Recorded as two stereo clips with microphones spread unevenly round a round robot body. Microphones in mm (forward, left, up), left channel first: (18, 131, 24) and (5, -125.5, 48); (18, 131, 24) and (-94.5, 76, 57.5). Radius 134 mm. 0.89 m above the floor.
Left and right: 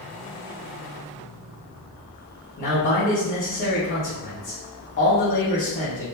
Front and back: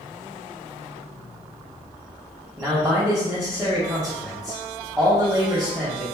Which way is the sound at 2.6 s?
135° left.